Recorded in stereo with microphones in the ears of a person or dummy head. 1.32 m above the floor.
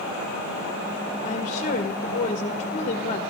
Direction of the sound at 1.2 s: 35° left (ahead or behind).